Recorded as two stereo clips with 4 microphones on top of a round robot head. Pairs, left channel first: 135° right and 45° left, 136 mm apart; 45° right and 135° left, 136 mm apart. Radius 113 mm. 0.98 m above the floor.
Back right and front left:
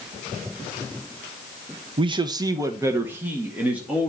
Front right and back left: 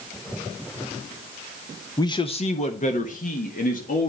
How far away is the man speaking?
About 0.6 m.